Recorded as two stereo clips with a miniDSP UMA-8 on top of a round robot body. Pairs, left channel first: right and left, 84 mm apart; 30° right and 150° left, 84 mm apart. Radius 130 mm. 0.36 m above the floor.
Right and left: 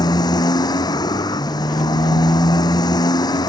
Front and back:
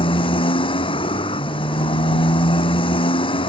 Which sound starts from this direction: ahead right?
A motorcycle, at 0.0 s.